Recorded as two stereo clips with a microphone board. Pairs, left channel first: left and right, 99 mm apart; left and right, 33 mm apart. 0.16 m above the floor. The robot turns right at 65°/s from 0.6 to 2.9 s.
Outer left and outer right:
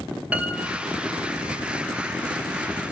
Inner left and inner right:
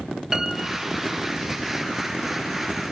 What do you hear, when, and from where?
0.3 s a piano: 15° right (ahead or behind), 1.0 m; by 1.0 s 35° right (ahead or behind), 1.0 m